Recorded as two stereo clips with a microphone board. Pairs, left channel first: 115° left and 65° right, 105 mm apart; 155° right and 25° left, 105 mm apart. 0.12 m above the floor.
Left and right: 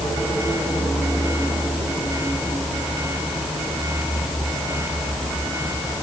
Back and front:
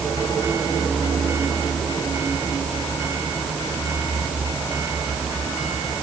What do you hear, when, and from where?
Only background noise.